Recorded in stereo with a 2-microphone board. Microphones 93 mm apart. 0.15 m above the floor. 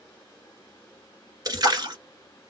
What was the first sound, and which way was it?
A splash, 45° right (ahead or behind).